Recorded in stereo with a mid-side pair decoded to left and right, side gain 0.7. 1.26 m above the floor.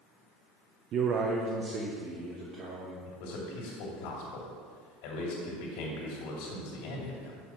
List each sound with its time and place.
0.9 s a man speaking: 50° right, 0.5 m; by 3.0 s 40° right, 1.7 m
3.1 s a man speaking: 70° left, 2 m